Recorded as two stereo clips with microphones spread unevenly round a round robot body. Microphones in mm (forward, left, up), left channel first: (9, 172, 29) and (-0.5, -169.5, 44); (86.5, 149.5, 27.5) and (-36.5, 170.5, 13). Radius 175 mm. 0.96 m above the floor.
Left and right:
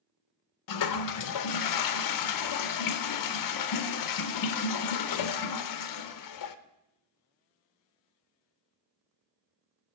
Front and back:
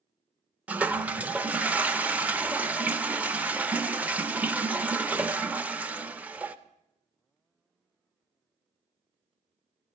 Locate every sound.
0.7 s a toilet flushing: 95° left, 0.7 m